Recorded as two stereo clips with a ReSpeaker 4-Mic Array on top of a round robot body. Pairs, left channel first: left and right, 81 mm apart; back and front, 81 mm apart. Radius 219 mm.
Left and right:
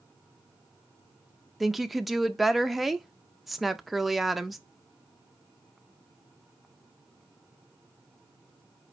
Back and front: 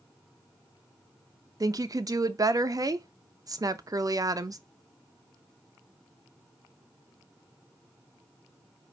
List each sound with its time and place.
1.6 s a woman speaking: straight ahead, 0.7 m